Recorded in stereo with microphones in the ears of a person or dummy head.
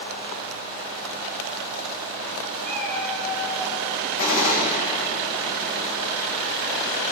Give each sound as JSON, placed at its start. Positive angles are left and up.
{"t": 2.6, "sound": "a cat meowing", "side_deg": 10, "distance_m": 3.0}
{"t": 4.2, "sound": "a gunshot", "side_deg": 50, "distance_m": 3.0}